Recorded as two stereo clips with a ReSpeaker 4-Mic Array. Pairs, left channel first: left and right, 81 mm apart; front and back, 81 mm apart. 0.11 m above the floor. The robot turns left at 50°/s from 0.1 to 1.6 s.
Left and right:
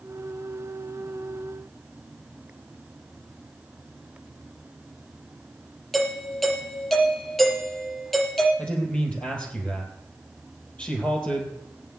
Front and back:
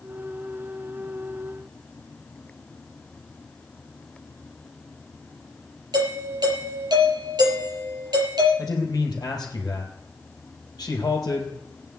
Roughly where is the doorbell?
Behind.